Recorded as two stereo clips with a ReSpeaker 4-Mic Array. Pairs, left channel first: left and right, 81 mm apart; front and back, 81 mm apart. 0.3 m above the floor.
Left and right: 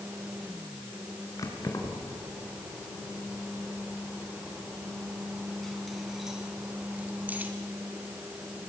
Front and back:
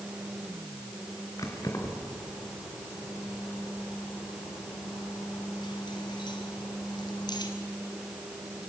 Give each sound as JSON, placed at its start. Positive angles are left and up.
{"t": 1.4, "sound": "keys jangling", "azimuth_deg": 45, "distance_m": 3.5}